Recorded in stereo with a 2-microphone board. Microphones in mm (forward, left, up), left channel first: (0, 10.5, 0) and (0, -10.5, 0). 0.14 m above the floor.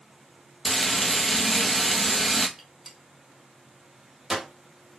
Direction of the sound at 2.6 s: 15° right (ahead or behind).